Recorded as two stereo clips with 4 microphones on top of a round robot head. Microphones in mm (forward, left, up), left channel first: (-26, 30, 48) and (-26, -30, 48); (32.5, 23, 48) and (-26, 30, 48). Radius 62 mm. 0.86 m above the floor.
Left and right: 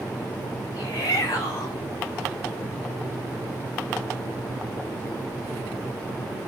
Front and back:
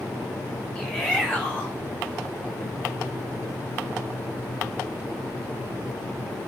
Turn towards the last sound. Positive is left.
turn(degrees=80)